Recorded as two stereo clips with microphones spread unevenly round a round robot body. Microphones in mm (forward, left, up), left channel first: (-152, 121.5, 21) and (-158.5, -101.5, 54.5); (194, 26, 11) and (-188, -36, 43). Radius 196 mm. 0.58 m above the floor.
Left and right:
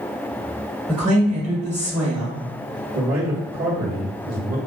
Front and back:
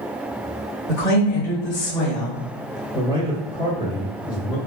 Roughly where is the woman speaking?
Ahead.